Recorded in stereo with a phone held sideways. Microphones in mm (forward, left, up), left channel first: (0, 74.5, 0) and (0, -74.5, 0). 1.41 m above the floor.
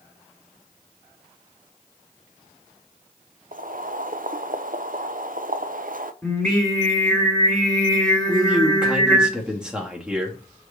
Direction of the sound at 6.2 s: 5° left (ahead or behind).